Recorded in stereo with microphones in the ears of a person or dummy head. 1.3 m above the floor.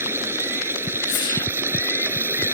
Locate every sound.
0.0 s running water: 15° right (ahead or behind)
1.1 s a whoosh: 25° left (ahead or behind)